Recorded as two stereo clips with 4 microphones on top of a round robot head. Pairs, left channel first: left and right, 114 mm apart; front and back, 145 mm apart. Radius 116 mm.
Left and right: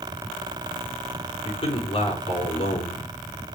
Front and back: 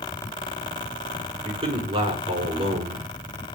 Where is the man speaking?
130° left, 5 m.